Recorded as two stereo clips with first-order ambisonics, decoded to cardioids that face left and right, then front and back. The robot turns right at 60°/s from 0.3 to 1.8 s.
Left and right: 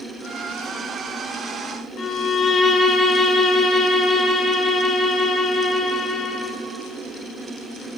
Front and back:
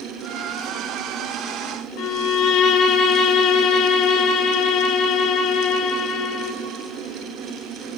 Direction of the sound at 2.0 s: 25° left.